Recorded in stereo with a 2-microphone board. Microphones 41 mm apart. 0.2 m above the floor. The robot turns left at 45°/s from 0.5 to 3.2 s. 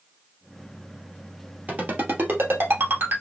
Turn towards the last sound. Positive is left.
turn(degrees=-70)  # may be behind; listen again after turning